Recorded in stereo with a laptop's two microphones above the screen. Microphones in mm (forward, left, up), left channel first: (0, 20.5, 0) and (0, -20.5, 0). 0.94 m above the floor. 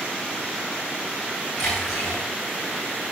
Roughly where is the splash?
Centre.